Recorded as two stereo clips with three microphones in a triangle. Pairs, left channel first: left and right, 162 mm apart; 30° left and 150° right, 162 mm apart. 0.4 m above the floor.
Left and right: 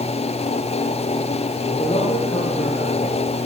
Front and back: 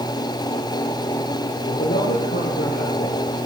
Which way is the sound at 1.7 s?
40° left.